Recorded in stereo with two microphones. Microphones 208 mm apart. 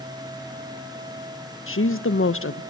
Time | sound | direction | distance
1.7 | a woman speaking | 80° left | 0.8 m